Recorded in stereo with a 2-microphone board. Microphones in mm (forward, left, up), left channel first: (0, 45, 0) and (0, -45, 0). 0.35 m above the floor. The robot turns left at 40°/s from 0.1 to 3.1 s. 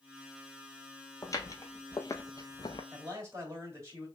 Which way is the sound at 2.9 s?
25° right (ahead or behind).